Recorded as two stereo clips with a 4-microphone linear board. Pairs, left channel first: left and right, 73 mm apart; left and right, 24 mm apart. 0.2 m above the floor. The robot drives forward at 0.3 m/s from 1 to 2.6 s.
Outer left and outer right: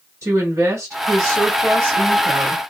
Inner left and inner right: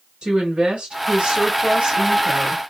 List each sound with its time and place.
0.2 s a woman speaking: 30° right (ahead or behind), 1.5 m